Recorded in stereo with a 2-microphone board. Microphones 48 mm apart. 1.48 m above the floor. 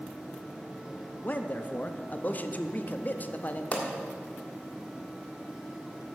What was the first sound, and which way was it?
A man speaking, 35° left (ahead or behind).